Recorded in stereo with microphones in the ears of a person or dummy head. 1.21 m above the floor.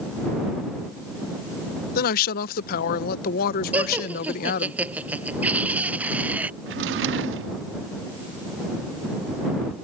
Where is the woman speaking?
50° left (ahead or behind).